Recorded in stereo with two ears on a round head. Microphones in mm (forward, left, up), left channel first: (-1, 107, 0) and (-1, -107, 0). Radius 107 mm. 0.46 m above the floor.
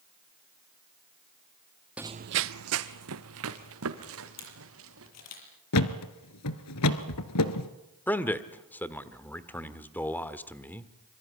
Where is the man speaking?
10° left (ahead or behind), 1.3 m.